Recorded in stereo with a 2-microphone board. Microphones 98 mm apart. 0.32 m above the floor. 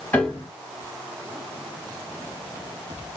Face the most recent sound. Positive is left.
turn(degrees=20)  # may be behind; listen again after turning